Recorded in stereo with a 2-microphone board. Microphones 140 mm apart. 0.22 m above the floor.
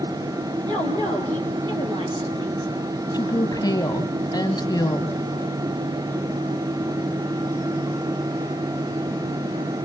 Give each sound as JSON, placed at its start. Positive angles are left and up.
{"t": 0.7, "sound": "a woman speaking", "side_deg": -30, "distance_m": 6.0}
{"t": 3.1, "sound": "a woman speaking", "side_deg": 25, "distance_m": 1.3}